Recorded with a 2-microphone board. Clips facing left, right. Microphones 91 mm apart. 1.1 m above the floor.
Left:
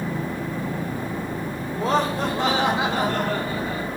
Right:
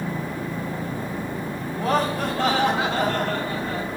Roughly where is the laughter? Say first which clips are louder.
Left 1 dB; left.